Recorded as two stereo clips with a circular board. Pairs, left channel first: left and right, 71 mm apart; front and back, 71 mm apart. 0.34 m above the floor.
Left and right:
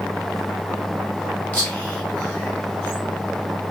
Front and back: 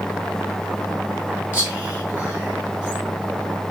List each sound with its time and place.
1.5 s whispering: 135° left, 1.5 m